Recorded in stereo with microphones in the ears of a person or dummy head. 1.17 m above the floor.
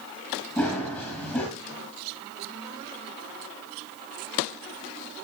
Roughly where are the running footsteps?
Centre.